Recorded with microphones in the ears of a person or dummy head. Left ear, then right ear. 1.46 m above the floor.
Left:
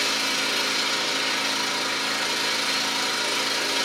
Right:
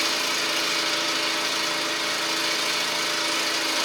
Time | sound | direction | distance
0.0 | an engine running | 10° right (ahead or behind) | 2.5 m